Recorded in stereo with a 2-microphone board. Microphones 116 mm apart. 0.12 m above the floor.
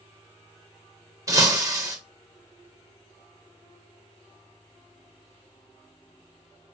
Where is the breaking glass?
25° right (ahead or behind), 3 m.